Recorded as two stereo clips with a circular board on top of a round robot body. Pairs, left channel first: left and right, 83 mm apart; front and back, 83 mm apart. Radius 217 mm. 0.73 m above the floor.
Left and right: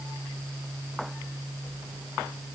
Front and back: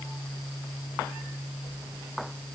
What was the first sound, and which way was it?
Only background noise.